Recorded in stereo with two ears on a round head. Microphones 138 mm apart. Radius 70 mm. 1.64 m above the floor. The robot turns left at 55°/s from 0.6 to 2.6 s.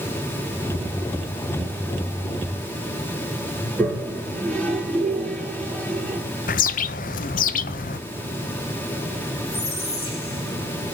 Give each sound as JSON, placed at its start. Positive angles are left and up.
{"t": 3.6, "sound": "a toilet flushing", "side_deg": 10, "distance_m": 6.0}
{"t": 6.5, "sound": "a bird", "side_deg": 60, "distance_m": 0.7}
{"t": 9.5, "sound": "a squeak", "side_deg": 70, "distance_m": 5.5}